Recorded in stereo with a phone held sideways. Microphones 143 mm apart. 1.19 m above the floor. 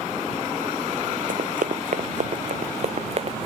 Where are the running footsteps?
70° right (ahead or behind); by 3.5 s 45° right (ahead or behind).